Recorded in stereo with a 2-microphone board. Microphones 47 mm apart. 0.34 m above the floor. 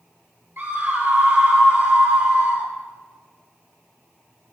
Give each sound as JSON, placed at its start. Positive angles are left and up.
{"t": 0.6, "sound": "a scream", "side_deg": -55, "distance_m": 7.0}